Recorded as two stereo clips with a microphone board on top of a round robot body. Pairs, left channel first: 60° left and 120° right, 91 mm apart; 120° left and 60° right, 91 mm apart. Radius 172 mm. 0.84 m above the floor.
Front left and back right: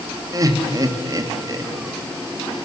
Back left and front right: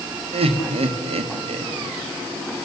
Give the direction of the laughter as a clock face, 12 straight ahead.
2 o'clock.